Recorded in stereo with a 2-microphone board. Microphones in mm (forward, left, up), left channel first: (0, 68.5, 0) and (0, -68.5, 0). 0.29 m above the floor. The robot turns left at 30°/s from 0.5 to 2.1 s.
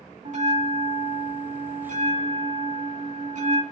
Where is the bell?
65° right, 2.5 m; by 3.6 s 110° right, 2.5 m.